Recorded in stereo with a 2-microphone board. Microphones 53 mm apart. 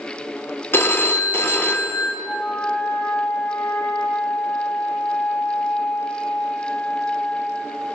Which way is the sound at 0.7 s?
40° left (ahead or behind).